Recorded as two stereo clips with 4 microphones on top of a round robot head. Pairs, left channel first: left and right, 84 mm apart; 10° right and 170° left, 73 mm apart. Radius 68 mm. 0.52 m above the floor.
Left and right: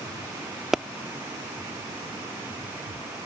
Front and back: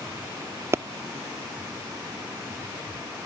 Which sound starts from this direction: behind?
A pop, at 0.7 s.